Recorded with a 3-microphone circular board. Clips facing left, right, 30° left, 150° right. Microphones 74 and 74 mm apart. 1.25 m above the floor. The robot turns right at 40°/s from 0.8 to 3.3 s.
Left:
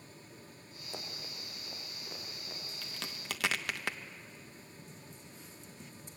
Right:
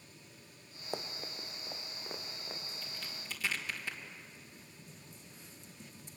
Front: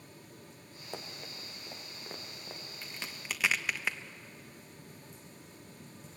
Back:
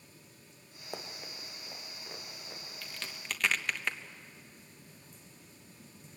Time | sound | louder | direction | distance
0.9 | running footsteps | right 5 dB, back 1 dB | 70° right | 2 m
2.8 | a crack | left 3 dB, even | 95° left | 1.1 m